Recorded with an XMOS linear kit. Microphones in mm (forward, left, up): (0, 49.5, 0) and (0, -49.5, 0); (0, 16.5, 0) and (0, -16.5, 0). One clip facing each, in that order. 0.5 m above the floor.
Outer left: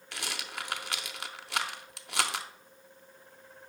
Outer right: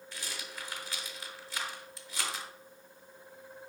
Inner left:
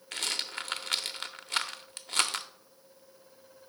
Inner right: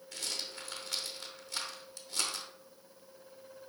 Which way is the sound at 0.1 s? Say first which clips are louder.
Outer left 5 dB, inner left 7 dB; 70° left (ahead or behind).